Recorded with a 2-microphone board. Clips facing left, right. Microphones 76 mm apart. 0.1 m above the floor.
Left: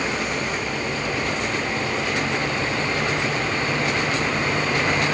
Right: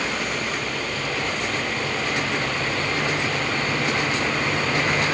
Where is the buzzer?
No buzzer in this recording.